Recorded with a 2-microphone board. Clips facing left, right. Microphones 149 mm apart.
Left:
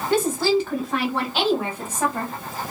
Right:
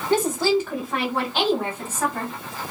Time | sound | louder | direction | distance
0.1 | a woman speaking | even | 15° right (ahead or behind) | 1.6 m